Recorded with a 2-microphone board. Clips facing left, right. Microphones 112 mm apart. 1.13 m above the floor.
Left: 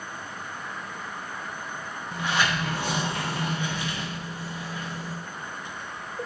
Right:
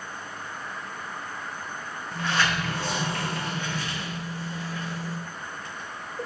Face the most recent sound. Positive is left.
turn(degrees=15)  # may be behind; listen again after turning